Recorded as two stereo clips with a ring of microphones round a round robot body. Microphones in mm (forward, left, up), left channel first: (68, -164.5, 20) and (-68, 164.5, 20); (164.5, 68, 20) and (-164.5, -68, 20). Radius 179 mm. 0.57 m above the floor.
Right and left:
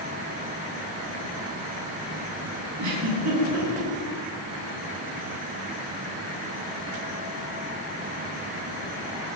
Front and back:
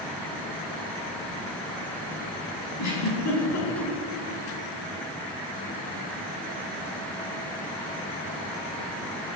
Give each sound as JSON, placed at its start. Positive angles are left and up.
{"t": 2.8, "sound": "a giggle", "azimuth_deg": 65, "distance_m": 6.0}